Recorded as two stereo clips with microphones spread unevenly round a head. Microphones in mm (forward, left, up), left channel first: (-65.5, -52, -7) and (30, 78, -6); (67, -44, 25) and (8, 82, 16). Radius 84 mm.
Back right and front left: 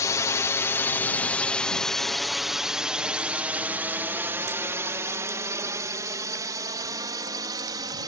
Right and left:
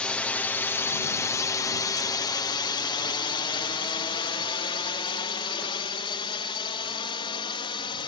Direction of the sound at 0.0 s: 145° right.